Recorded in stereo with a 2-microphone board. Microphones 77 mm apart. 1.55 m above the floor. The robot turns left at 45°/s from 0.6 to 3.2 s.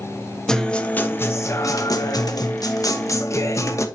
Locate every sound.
0.5 s a guitar: 170° left, 1.0 m; by 3.9 s 50° left, 1.0 m